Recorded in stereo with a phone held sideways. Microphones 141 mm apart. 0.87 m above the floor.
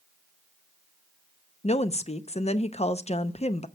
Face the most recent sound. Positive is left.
turn(degrees=50)  # may be behind; listen again after turning